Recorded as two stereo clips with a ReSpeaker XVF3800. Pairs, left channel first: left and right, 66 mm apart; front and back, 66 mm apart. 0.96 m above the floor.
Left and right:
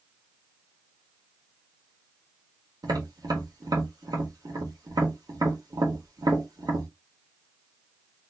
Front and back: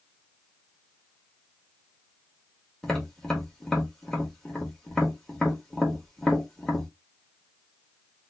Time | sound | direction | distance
2.8 | tapping | 80° right | 1.8 m